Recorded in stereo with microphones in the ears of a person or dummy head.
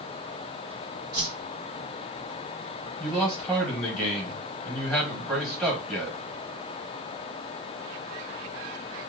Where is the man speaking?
Centre (ahead or behind), 1.2 m.